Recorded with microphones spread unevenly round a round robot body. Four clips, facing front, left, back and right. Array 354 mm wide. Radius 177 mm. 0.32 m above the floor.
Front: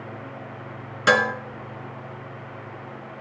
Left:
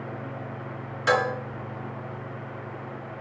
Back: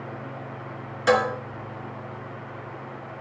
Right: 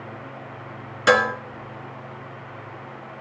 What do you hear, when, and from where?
1.1 s dishes clattering: 40° right, 3 m